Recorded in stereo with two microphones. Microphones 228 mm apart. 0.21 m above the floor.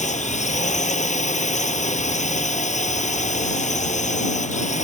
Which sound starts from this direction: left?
A drone, at 0.0 s.